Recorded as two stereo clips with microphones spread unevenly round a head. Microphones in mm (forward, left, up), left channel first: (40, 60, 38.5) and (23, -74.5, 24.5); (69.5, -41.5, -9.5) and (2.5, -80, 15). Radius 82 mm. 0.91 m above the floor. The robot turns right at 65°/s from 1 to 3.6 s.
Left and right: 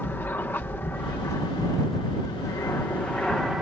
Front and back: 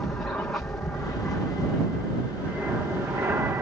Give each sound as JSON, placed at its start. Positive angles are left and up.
{"t": 0.0, "sound": "an aircraft", "azimuth_deg": 20}